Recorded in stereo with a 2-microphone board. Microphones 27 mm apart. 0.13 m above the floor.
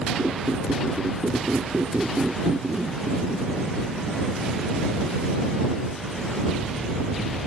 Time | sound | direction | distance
0.2 | a squeak | 60° right (ahead or behind) | ?